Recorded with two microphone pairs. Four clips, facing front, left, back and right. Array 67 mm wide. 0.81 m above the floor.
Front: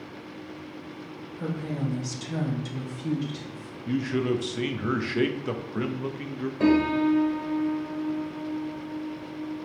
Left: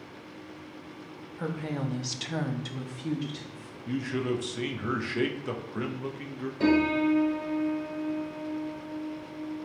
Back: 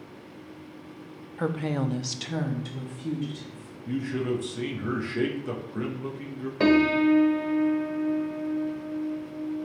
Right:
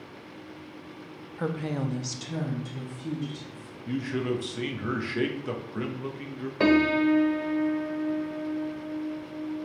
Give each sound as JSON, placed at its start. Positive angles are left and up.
{"t": 1.4, "sound": "a woman speaking", "azimuth_deg": -170, "distance_m": 0.7}
{"t": 3.9, "sound": "a man speaking", "azimuth_deg": -5, "distance_m": 0.8}
{"t": 6.6, "sound": "a piano", "azimuth_deg": -120, "distance_m": 1.0}